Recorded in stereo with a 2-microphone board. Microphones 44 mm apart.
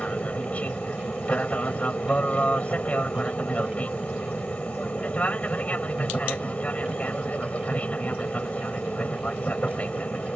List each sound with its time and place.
0.0 s an aircraft: 30° left (ahead or behind)